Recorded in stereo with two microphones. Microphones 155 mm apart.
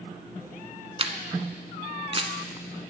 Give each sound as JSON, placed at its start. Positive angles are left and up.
{"t": 1.0, "sound": "a camera shutter", "side_deg": -40, "distance_m": 0.7}